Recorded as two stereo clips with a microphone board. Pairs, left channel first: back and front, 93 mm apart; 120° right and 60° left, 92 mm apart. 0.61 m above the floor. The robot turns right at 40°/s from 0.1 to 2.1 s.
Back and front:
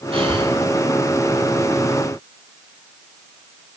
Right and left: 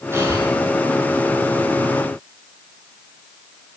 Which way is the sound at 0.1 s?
5° right.